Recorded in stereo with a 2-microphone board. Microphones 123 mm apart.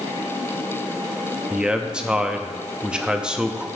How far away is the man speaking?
About 0.6 m.